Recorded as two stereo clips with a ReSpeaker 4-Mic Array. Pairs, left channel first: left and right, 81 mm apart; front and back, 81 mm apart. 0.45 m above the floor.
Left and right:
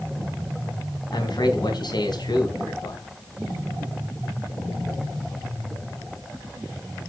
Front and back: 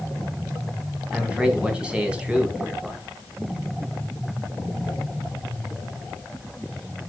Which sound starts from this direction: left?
A man speaking, at 1.1 s.